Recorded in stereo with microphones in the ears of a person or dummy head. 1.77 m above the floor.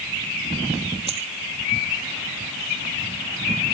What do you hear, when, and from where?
1.1 s a dropped coin: 30° right (ahead or behind)